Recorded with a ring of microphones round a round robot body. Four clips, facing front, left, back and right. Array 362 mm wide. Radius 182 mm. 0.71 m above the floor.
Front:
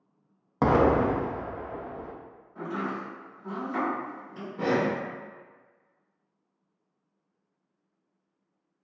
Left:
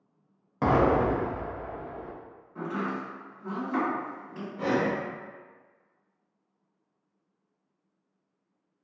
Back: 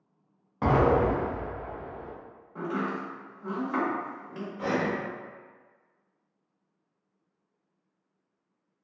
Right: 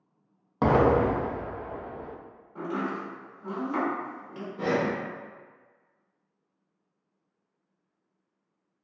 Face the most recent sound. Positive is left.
turn(degrees=-10)